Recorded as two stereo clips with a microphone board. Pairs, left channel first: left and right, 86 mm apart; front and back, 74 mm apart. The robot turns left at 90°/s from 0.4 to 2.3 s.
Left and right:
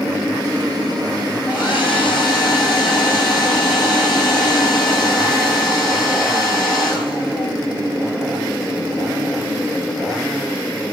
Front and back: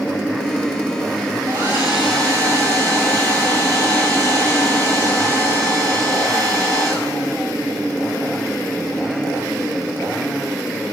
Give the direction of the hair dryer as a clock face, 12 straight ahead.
7 o'clock.